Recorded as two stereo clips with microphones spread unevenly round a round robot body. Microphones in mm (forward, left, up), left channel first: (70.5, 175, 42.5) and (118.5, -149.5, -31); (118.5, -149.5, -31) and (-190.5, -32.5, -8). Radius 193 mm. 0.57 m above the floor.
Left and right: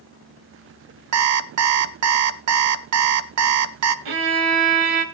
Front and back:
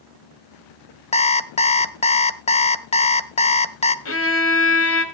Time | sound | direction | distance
1.1 | an alarm clock | 85° right | 0.7 m
4.0 | a violin | 70° right | 1.5 m